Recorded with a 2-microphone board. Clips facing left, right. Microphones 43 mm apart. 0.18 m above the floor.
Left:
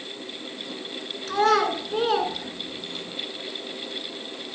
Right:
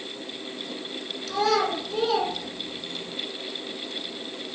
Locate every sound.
1.3 s a child speaking: 35° left (ahead or behind), 1.7 m